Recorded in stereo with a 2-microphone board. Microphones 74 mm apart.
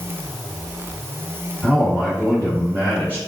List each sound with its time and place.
1.6 s a man speaking: centre (ahead or behind), 1.8 m; by 3.2 s 20° left (ahead or behind), 1.8 m